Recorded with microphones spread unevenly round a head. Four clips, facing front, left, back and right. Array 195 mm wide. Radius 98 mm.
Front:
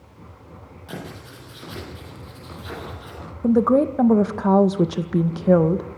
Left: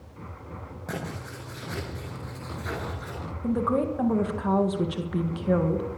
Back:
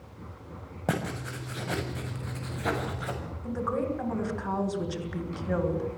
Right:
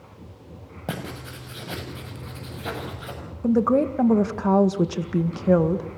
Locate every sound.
0.9 s writing: 150° right, 6.5 m
3.4 s a woman speaking: 20° right, 1.9 m